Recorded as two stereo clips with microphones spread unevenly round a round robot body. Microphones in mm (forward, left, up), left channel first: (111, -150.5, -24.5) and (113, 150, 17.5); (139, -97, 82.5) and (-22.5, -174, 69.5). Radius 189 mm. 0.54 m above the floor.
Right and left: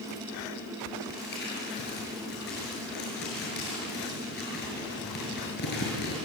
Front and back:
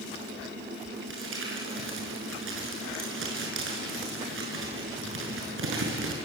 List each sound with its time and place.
1.1 s crumpling: 155° right, 6.5 m